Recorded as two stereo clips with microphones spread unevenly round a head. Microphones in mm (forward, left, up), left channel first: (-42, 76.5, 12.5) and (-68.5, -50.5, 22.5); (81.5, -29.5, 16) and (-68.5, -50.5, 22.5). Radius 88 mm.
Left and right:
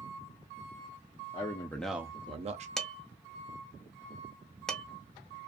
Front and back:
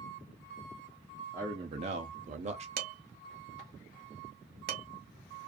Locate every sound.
1.3 s a man speaking: 115° left, 0.8 m; by 2.7 s 130° right, 0.9 m
2.8 s dishes clattering: 165° left, 0.8 m